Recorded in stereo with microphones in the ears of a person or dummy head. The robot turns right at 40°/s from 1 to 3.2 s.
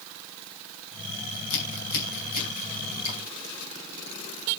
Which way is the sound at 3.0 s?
35° left (ahead or behind).